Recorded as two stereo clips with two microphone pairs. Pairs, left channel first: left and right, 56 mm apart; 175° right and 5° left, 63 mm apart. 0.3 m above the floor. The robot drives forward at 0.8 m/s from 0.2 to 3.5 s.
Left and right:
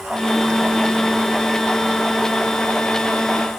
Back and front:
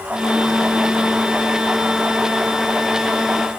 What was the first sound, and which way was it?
Only background noise.